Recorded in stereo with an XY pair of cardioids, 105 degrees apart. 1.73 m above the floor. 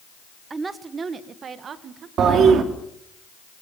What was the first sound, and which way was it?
A woman speaking, 30° right.